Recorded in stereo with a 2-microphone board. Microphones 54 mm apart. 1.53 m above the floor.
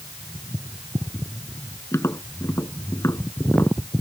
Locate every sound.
1.9 s tapping: 65° left (ahead or behind)